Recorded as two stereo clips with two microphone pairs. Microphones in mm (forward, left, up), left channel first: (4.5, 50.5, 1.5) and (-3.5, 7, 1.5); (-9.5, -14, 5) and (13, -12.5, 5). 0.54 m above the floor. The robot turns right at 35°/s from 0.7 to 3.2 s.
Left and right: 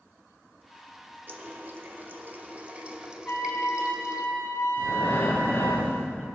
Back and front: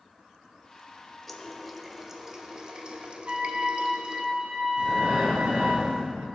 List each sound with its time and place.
1.3 s a running tap: 95° right, 0.5 m; by 4.2 s 30° right, 0.5 m
3.2 s a trumpet: 35° left, 1.2 m
4.8 s breathing: 35° left, 1.9 m